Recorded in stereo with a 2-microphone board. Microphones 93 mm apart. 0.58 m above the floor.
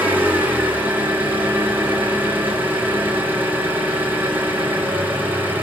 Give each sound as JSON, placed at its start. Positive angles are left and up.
{"t": 0.0, "sound": "an engine running", "side_deg": -20, "distance_m": 1.6}